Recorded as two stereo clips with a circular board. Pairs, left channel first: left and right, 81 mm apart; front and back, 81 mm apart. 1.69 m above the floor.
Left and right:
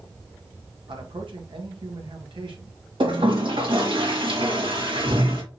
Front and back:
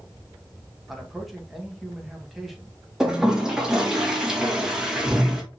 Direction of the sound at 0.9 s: 90° right.